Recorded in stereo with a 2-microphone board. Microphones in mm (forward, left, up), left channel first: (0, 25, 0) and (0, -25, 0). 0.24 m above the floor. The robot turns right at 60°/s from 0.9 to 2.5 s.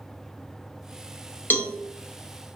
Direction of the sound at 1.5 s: 40° left (ahead or behind).